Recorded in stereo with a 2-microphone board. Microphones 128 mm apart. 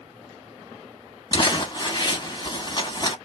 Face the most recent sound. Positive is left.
turn(degrees=40)  # may be behind; listen again after turning